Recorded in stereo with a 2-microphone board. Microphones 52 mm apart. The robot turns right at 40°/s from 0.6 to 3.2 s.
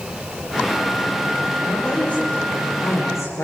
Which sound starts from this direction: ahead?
A woman speaking, at 1.6 s.